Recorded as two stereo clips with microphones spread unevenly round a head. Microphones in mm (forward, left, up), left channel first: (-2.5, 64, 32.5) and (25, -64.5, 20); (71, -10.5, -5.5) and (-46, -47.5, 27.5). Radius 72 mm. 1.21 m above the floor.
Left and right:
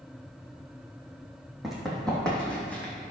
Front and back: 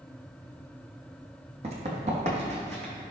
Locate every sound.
1.6 s running footsteps: 170° right, 2.5 m; by 2.9 s straight behind, 3 m